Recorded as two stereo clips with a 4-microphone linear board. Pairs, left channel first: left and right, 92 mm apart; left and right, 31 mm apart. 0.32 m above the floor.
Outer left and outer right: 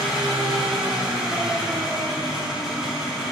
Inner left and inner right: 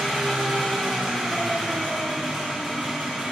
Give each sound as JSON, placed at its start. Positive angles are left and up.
{"t": 0.0, "sound": "an engine running", "side_deg": -5, "distance_m": 3.5}